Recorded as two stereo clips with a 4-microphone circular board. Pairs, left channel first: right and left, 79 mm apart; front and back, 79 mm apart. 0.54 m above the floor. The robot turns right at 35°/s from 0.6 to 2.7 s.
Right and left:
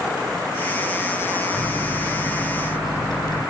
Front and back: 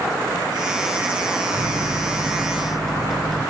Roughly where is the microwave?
Behind right.